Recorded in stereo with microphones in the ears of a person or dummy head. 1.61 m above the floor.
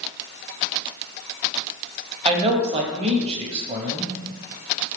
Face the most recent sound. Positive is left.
turn(degrees=-30)  # may be behind; listen again after turning